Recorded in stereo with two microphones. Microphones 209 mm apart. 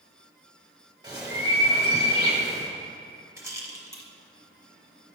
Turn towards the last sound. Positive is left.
turn(degrees=-15)  # may be behind; listen again after turning